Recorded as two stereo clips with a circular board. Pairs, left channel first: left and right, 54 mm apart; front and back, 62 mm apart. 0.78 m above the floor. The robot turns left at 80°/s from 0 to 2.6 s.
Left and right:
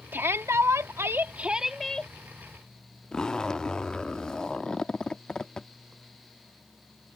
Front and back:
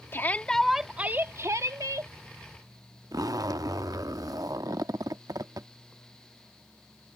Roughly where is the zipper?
Behind.